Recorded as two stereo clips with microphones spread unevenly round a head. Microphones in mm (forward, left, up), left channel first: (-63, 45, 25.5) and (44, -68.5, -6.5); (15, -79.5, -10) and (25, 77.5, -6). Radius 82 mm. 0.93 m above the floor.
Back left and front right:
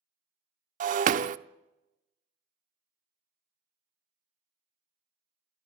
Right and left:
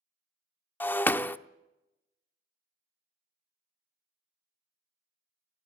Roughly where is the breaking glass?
Ahead.